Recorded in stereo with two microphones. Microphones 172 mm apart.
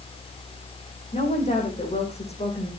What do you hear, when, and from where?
1.1 s a woman speaking: 40° left (ahead or behind), 9 m